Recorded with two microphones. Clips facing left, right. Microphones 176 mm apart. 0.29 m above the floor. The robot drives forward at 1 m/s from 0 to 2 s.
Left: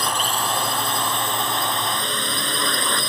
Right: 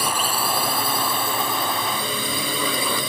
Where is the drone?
10° right (ahead or behind).